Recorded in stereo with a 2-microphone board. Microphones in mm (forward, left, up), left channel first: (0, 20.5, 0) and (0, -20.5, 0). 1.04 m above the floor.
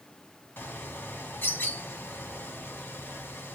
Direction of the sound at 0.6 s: 65° left (ahead or behind).